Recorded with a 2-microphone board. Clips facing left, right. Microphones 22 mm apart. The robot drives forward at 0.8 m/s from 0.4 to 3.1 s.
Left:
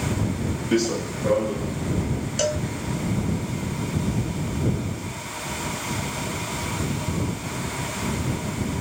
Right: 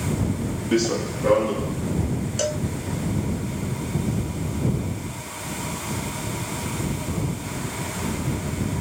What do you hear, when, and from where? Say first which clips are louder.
0.7 s running footsteps: right 1 dB; 5° left (ahead or behind), 0.7 m; by 1.7 s 40° right (ahead or behind), 2 m
2.4 s a cowbell: left 2 dB; 10° left (ahead or behind), 0.6 m